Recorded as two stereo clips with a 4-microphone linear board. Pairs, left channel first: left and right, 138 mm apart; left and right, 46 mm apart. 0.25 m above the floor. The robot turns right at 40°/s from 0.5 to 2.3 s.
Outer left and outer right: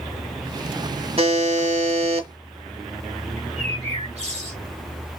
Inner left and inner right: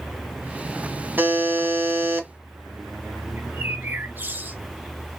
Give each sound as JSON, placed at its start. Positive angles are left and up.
{"t": 1.2, "sound": "a buzzer", "azimuth_deg": -120, "distance_m": 1.5}
{"t": 3.4, "sound": "a bird", "side_deg": -55, "distance_m": 2.5}